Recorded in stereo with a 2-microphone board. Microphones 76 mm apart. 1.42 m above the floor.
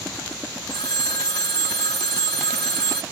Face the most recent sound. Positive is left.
turn(degrees=70)  # may be behind; listen again after turning